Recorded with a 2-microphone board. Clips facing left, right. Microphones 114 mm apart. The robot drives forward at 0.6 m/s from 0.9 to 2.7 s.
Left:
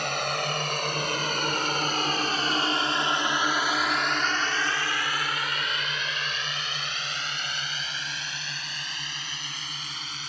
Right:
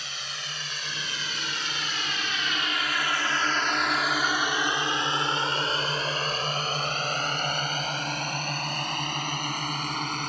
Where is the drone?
70° left (ahead or behind); by 10.3 s 60° right (ahead or behind).